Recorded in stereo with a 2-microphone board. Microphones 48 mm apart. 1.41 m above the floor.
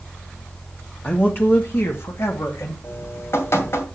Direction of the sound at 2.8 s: 60° left (ahead or behind).